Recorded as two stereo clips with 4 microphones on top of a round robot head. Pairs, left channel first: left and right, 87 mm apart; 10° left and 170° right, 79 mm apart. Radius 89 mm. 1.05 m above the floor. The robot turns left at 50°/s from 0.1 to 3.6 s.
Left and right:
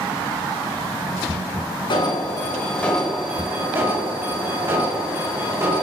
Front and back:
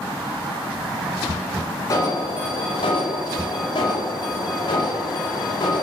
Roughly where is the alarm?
Ahead left.